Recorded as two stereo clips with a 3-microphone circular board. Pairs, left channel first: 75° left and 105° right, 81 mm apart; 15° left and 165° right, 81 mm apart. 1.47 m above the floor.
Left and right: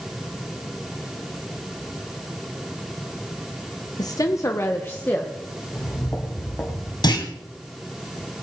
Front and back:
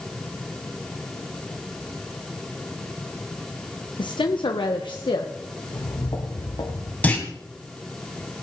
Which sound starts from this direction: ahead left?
A woman speaking, at 4.0 s.